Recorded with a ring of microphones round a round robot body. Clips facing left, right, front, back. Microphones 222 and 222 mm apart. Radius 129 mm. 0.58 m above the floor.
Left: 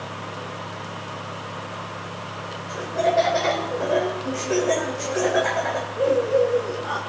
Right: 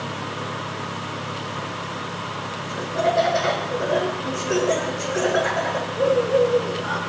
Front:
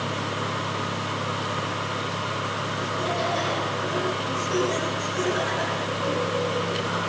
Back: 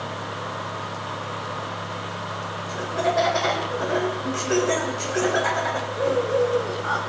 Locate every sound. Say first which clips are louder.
2.7 s laughter: even, back 6 dB; 175° right, 3 m